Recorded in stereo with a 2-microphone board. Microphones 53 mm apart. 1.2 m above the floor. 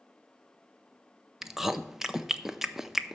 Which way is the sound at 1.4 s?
5° right (ahead or behind).